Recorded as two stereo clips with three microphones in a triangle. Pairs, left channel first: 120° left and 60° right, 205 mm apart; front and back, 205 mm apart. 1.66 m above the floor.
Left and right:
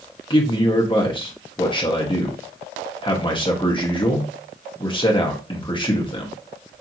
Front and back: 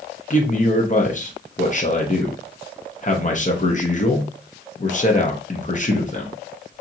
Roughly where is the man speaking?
Ahead left.